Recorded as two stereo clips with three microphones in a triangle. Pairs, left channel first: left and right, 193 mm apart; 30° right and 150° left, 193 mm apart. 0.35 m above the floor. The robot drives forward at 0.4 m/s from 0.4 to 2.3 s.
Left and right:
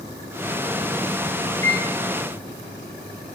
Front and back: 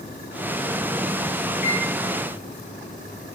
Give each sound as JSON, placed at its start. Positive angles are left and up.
{"t": 1.6, "sound": "a microwave", "azimuth_deg": 155, "distance_m": 2.5}